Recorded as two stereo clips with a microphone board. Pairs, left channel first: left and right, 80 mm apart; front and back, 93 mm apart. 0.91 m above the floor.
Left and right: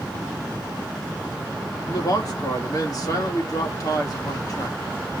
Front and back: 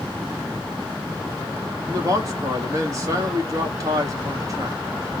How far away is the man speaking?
About 1.8 m.